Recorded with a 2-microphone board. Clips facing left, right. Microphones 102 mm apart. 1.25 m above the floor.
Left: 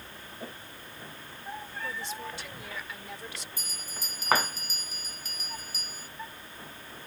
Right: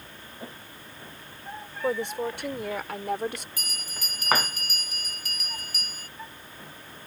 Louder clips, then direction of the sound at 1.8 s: Right 13 dB; 60° right (ahead or behind).